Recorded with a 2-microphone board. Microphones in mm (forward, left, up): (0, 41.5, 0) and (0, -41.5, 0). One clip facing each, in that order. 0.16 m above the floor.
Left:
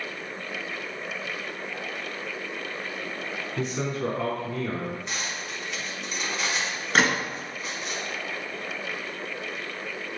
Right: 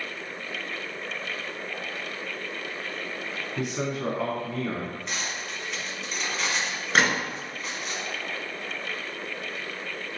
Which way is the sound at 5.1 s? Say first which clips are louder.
Even; centre (ahead or behind).